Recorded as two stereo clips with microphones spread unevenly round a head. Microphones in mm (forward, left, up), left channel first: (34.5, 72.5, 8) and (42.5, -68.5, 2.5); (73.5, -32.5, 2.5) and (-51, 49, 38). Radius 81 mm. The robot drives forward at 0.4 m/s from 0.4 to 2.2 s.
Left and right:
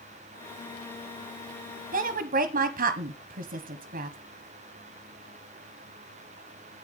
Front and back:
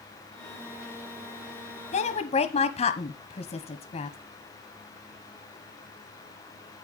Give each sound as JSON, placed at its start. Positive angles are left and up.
{"t": 1.9, "sound": "a woman speaking", "azimuth_deg": -65, "distance_m": 0.9}